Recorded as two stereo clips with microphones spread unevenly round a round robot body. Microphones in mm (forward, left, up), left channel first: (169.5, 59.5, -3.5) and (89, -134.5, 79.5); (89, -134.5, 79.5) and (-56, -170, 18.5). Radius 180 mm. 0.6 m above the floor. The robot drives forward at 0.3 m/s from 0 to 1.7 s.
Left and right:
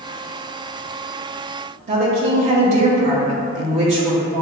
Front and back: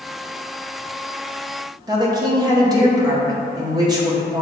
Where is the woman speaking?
175° left, 0.8 m.